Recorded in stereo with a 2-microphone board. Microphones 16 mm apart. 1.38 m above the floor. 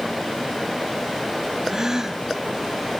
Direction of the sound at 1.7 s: 35° right (ahead or behind).